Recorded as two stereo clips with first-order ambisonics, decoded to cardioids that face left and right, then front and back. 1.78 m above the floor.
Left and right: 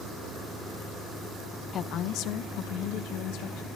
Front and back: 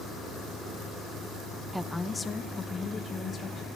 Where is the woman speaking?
105° left, 0.6 m; by 3.7 s 70° left, 3 m.